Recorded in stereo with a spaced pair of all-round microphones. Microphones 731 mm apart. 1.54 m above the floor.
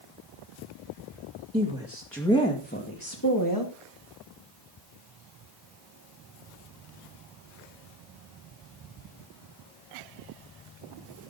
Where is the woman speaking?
10° right (ahead or behind), 2.5 m; by 3.8 s 30° left (ahead or behind), 2.5 m.